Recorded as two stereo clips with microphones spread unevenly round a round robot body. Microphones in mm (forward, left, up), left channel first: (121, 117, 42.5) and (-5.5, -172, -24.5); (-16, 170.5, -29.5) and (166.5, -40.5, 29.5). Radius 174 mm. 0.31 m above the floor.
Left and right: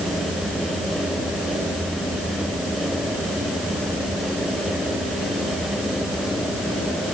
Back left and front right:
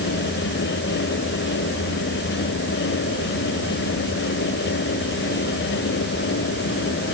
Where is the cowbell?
I don't hear a cowbell.